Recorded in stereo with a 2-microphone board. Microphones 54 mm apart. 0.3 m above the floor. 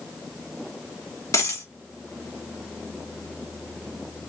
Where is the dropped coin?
70° left (ahead or behind), 1.2 m.